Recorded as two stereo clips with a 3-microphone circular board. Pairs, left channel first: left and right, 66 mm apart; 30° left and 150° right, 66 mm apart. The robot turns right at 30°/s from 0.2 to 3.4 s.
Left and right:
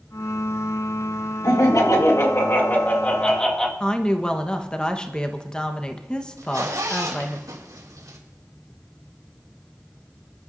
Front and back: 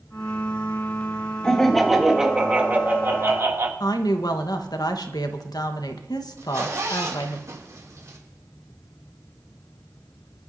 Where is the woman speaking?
10° left, 1.2 m.